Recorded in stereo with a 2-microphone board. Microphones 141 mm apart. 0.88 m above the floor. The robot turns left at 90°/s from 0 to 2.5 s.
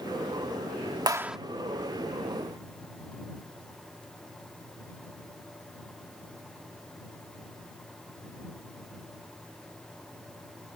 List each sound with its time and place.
1.1 s a clap: 30° right (ahead or behind); by 1.4 s centre (ahead or behind)